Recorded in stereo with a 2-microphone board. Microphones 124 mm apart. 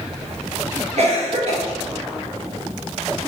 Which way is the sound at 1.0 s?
60° right (ahead or behind).